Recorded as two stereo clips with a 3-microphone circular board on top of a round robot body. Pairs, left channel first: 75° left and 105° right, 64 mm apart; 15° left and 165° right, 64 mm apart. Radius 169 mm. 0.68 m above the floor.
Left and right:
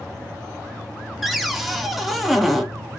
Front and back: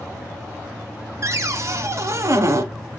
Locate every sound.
1.2 s a cupboard door: 165° left, 1.6 m